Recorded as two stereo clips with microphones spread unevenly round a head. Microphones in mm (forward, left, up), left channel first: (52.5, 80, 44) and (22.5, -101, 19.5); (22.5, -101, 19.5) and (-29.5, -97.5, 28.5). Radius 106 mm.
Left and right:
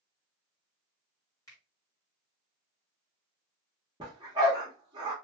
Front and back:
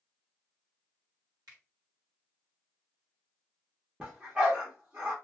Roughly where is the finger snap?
Behind left.